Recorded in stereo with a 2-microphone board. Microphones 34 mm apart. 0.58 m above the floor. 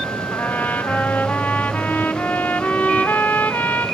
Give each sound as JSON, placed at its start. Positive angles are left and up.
{"t": 0.3, "sound": "a trumpet", "side_deg": 60, "distance_m": 1.4}